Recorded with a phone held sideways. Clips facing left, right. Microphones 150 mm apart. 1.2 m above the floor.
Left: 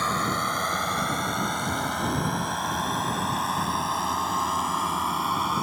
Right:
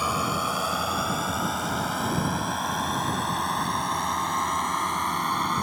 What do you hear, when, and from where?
0.0 s a drone: 10° right (ahead or behind); by 5.6 s 5° left (ahead or behind)